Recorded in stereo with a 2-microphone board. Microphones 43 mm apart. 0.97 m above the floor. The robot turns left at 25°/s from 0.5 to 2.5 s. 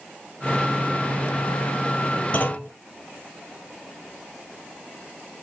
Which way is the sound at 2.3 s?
40° left (ahead or behind).